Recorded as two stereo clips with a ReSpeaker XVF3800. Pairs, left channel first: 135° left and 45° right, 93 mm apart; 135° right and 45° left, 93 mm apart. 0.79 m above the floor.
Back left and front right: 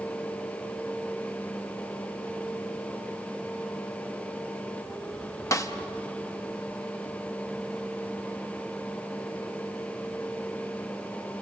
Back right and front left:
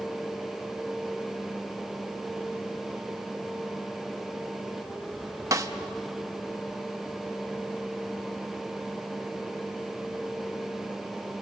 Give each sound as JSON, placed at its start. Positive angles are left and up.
{"t": 5.5, "sound": "a snare drum", "azimuth_deg": 90, "distance_m": 1.2}